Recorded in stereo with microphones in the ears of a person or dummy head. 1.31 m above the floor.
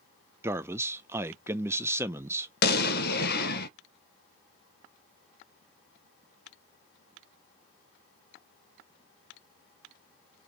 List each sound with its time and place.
0.4 s a man speaking: 15° right (ahead or behind), 0.5 m
2.6 s an explosion: 65° left (ahead or behind), 0.7 m